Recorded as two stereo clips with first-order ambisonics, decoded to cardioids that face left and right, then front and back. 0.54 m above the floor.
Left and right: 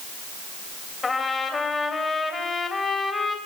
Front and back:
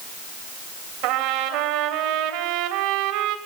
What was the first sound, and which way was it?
A trumpet, 165° left.